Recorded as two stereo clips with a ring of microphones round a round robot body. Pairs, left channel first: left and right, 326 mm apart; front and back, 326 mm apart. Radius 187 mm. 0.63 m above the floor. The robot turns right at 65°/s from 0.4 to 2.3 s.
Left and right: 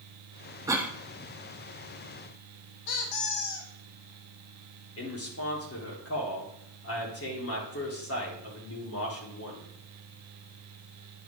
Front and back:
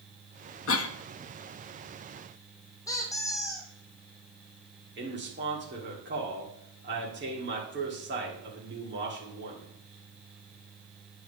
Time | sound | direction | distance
0.7 | a cough | 15° right | 0.7 m
2.9 | a squeak | 80° left | 1.3 m
5.0 | a man speaking | 130° left | 2 m